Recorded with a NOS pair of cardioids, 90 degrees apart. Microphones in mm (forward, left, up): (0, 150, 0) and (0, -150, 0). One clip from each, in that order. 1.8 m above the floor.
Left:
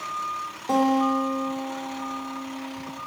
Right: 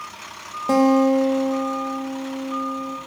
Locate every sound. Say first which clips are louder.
0.7 s a guitar: right 5 dB; 40° right, 1.3 m